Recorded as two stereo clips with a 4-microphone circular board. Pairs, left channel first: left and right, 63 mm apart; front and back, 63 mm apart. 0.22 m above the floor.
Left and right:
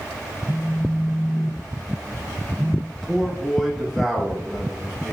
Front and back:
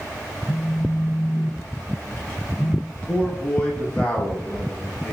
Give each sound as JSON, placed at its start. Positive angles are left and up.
{"t": 0.5, "sound": "a phone buzzing", "azimuth_deg": -10, "distance_m": 1.4}
{"t": 2.9, "sound": "a man speaking", "azimuth_deg": 5, "distance_m": 1.0}